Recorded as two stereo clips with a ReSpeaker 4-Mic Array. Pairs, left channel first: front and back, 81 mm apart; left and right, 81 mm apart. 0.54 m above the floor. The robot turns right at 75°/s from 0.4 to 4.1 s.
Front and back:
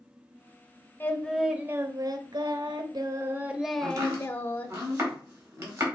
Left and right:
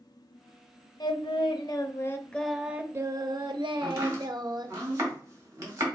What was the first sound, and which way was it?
Singing, 65° left.